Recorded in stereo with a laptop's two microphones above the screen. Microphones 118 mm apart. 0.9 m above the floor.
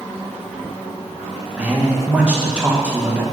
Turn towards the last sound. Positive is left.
turn(degrees=-10)  # may be behind; listen again after turning